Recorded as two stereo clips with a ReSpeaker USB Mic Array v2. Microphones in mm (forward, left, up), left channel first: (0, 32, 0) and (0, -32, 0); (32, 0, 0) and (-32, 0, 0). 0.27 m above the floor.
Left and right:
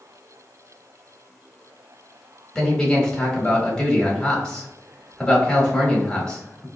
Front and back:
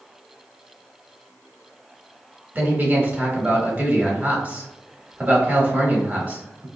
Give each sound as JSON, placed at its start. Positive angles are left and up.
{"t": 2.5, "sound": "a man speaking", "azimuth_deg": 160, "distance_m": 1.0}